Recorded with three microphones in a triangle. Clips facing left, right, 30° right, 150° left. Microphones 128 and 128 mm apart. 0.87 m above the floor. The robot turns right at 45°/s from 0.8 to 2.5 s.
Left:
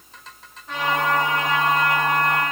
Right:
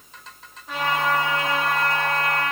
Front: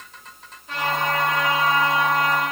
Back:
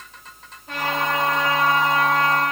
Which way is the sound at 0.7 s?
175° right.